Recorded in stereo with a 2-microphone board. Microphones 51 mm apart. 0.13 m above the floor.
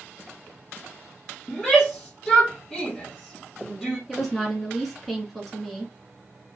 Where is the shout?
5° left (ahead or behind), 2.5 m.